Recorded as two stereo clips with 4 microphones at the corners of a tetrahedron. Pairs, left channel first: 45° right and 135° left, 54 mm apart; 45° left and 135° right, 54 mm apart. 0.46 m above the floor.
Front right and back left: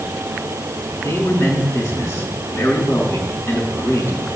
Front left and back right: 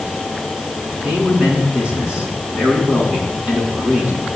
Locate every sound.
1.0 s a man speaking: 65° right, 6 m